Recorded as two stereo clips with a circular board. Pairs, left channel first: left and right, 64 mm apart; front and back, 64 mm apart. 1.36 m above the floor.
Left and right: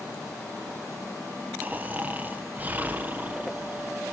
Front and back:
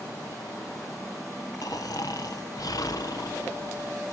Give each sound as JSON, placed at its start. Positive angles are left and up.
{"t": 1.6, "sound": "snoring", "azimuth_deg": -25, "distance_m": 1.0}